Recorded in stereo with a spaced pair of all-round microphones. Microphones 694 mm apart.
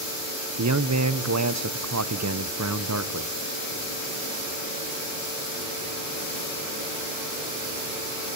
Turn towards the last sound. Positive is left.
turn(degrees=-25)  # may be behind; listen again after turning